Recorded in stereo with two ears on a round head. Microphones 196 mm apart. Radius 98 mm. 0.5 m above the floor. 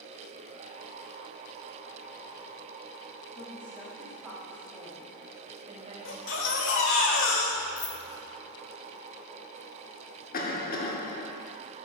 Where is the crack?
I don't hear a crack.